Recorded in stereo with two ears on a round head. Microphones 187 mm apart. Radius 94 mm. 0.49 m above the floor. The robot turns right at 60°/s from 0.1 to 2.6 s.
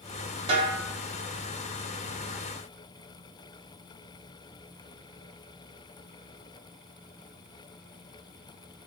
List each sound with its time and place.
0.5 s a snare drum: 30° right (ahead or behind), 2.5 m; by 0.8 s 45° right (ahead or behind), 2.5 m